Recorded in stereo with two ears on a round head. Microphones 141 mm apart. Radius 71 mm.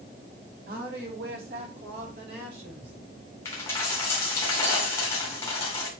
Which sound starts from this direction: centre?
A dropped coin, at 3.5 s.